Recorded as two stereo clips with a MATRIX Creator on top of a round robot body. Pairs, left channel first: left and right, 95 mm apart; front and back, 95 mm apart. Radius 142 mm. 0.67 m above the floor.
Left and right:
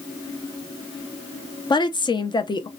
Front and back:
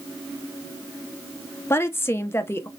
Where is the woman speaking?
60° left, 0.8 m.